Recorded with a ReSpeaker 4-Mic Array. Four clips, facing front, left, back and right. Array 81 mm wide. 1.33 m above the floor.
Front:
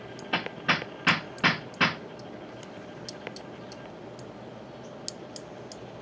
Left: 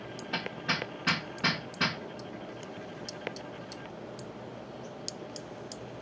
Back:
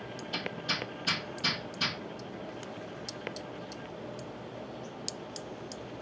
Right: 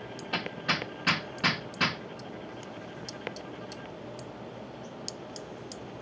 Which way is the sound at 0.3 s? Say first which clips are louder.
Right 2 dB, front 9 dB; 10° right.